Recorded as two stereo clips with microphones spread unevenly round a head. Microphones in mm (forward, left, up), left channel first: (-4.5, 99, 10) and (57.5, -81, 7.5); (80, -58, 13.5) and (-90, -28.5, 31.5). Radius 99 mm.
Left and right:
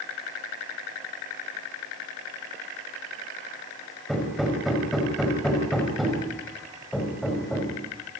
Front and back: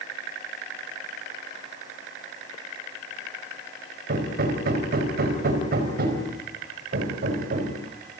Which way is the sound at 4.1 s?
160° right.